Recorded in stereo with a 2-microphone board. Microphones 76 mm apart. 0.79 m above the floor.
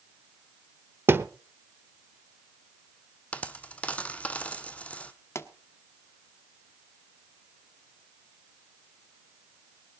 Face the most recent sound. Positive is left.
turn(degrees=35)  # may be behind; listen again after turning